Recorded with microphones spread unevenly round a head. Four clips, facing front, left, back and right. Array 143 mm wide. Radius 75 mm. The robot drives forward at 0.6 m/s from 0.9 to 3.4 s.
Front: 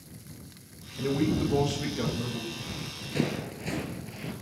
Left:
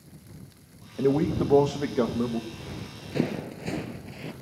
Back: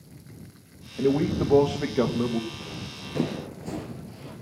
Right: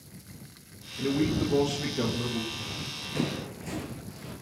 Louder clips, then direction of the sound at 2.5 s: Even, back 1 dB; 140° left.